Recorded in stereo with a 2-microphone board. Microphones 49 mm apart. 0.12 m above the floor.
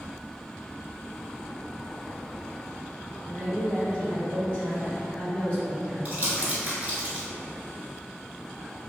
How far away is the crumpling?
About 0.7 m.